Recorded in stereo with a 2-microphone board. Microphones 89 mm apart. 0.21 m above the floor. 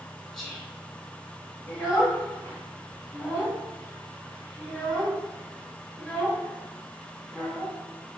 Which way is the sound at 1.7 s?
25° left (ahead or behind).